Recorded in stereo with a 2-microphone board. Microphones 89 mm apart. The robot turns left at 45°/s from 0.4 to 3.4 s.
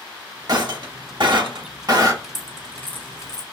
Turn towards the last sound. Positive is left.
turn(degrees=45)  # may be behind; listen again after turning